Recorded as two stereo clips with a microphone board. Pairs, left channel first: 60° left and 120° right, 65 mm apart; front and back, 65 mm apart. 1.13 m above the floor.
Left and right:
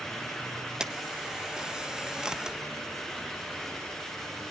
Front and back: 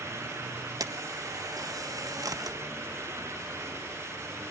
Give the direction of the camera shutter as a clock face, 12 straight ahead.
7 o'clock.